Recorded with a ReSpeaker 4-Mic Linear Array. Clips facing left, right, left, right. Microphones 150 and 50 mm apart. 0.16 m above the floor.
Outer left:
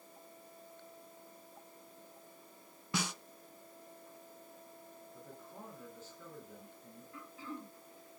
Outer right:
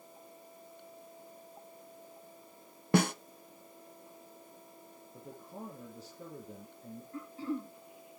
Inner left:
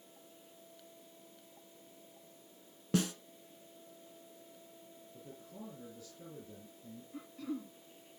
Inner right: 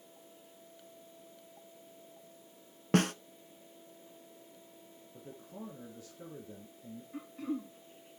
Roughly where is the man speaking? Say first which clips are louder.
Outer right 6 dB, inner right 3 dB; right.